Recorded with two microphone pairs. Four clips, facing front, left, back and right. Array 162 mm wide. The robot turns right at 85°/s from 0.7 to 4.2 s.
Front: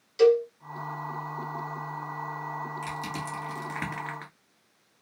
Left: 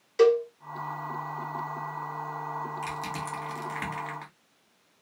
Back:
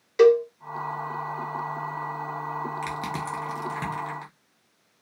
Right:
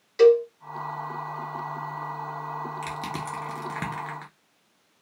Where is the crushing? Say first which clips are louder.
Right 1 dB, back 4 dB; 150° right, 1.2 m; by 4.3 s 35° right, 1.2 m.